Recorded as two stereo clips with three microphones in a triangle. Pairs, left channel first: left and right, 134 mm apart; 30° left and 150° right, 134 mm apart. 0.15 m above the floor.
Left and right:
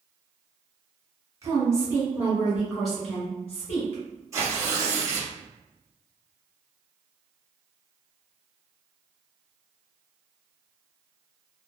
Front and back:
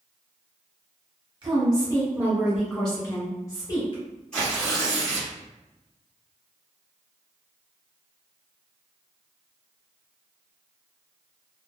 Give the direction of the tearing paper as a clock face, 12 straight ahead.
2 o'clock.